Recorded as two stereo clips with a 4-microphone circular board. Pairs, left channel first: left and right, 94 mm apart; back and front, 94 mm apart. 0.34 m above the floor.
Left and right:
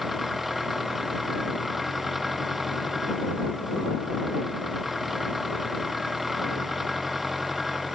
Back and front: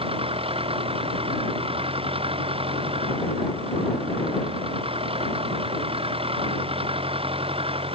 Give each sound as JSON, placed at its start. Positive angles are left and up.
{"t": 0.0, "sound": "an engine running", "azimuth_deg": -5}